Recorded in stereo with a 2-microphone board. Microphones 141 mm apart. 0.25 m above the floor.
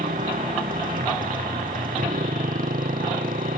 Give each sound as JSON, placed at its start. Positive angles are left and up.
{"t": 0.0, "sound": "a motorcycle", "side_deg": -90}